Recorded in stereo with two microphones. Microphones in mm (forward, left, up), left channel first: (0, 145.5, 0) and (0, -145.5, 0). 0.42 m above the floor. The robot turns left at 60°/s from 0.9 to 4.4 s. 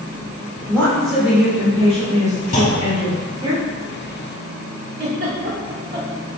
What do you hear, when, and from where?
0.7 s a woman speaking: 5° left (ahead or behind), 1.0 m; by 3.5 s 15° right (ahead or behind), 1.0 m
2.5 s a clunk: 30° left, 0.7 m; by 3.1 s 5° right, 0.7 m
5.0 s a giggle: 35° right (ahead or behind), 0.7 m